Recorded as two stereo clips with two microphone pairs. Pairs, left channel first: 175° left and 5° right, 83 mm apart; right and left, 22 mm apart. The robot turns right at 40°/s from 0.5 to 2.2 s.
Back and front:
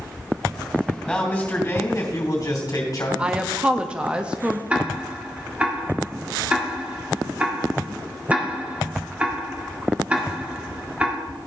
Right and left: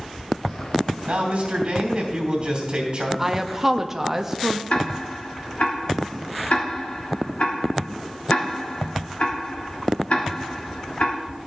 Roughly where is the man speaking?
Left.